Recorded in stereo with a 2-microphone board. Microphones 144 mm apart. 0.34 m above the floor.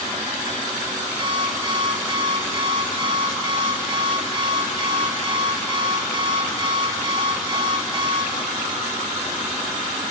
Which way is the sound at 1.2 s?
35° right (ahead or behind).